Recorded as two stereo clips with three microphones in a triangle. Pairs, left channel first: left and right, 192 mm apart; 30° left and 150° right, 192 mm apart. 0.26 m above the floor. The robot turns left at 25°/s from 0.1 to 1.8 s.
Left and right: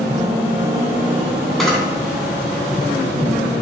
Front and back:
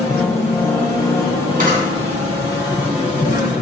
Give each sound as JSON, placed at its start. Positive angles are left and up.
{"t": 1.6, "sound": "a camera shutter", "azimuth_deg": 180, "distance_m": 2.5}